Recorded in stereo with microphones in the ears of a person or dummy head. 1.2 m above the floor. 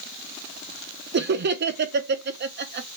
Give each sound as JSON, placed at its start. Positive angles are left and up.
{"t": 1.1, "sound": "laughter", "side_deg": -50, "distance_m": 0.6}